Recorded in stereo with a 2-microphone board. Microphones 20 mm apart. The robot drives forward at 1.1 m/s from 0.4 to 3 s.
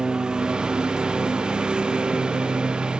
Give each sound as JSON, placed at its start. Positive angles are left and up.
{"t": 0.0, "sound": "a lawn mower", "side_deg": -40}